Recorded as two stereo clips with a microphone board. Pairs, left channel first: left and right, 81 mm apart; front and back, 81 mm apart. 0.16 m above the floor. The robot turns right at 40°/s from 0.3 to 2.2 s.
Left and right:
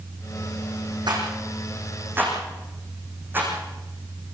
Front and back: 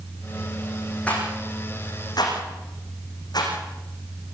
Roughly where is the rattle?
Right.